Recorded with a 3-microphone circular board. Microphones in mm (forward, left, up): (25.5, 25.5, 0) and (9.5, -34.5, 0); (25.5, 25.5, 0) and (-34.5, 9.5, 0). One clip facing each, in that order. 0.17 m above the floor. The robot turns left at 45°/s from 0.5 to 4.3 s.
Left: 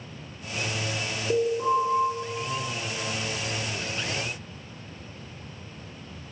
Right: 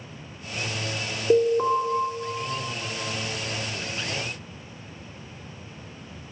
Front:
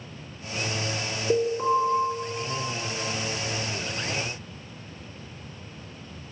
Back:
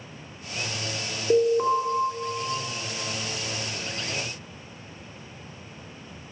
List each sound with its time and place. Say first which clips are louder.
1.3 s an alarm: right 4 dB, back 3 dB; 80° right, 2 m; by 1.8 s 100° right, 2 m